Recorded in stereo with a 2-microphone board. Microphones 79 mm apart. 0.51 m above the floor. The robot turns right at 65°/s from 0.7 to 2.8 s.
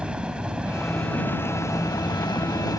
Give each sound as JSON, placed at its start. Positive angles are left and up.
{"t": 0.0, "sound": "a helicopter", "azimuth_deg": -15}